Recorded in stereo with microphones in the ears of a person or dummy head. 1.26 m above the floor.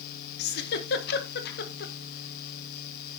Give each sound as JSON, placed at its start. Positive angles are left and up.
{"t": 0.4, "sound": "a giggle", "side_deg": 55, "distance_m": 1.3}